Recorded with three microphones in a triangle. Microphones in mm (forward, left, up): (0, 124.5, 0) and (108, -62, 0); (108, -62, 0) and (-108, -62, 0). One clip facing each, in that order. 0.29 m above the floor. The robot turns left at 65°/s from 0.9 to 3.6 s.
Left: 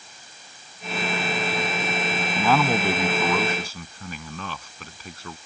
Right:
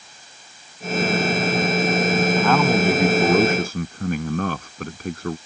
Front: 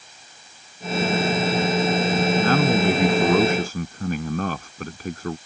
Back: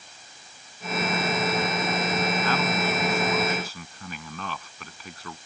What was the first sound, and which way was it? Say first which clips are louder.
A man speaking: even, front 8 dB; 45° left.